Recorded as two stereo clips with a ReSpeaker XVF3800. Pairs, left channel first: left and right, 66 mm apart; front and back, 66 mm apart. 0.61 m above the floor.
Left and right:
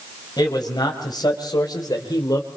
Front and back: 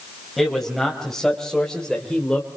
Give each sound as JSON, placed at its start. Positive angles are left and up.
{"t": 0.4, "sound": "a man speaking", "azimuth_deg": 90, "distance_m": 4.5}